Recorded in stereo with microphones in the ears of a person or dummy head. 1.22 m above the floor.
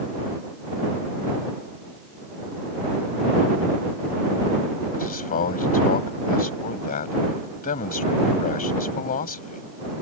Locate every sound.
4.9 s a man speaking: 45° left (ahead or behind)